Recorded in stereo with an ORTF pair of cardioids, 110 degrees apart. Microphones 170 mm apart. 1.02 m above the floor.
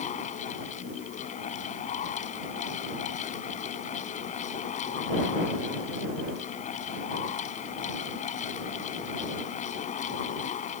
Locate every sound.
0.0 s a fan: 45° left